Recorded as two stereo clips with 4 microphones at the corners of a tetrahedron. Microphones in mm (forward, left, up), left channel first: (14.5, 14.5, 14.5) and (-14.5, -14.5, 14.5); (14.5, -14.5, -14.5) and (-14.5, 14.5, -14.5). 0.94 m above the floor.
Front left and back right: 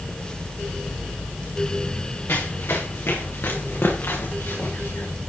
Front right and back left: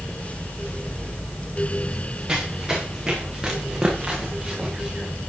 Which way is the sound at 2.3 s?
60° left.